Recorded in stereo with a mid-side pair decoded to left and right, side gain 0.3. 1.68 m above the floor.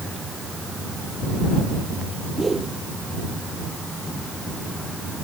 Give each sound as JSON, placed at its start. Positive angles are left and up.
{"t": 2.4, "sound": "a whoosh", "azimuth_deg": -30}